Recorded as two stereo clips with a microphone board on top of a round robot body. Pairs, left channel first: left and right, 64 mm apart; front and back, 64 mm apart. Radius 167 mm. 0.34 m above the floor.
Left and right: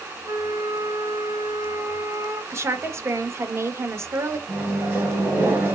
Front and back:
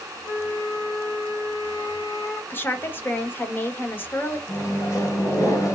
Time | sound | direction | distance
0.2 | a flute | 40° right | 3.5 m
2.5 | a woman speaking | 50° right | 1.6 m
4.5 | a microwave | 35° right | 3 m